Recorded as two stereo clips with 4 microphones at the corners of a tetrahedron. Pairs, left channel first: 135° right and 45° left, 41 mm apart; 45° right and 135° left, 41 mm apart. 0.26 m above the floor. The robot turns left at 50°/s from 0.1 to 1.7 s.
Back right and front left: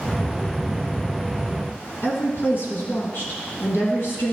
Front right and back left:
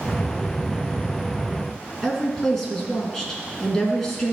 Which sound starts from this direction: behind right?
A woman speaking, at 2.0 s.